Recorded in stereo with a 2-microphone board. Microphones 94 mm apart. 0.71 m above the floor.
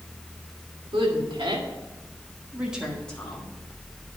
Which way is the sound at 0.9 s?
65° right (ahead or behind).